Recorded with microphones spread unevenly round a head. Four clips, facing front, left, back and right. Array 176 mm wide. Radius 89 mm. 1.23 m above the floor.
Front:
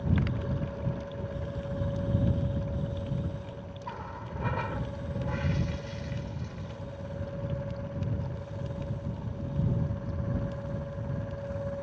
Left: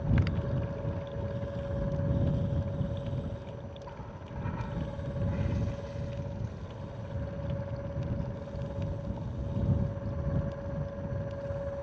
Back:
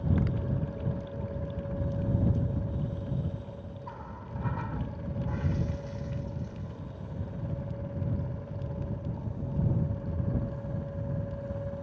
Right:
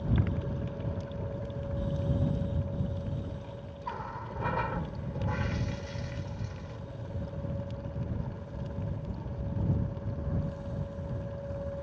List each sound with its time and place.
3.8 s a running tap: 55° right